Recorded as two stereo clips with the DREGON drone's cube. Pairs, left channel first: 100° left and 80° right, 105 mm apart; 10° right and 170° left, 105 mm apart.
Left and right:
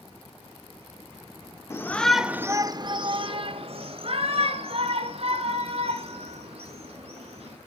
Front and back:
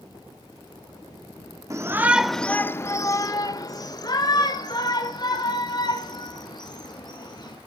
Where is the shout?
140° left, 0.9 m; by 7.6 s 60° right, 5.5 m.